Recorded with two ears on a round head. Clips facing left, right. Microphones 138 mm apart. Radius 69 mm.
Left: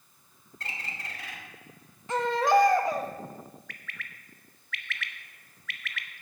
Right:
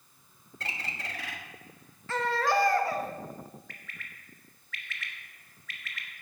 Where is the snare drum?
I don't hear a snare drum.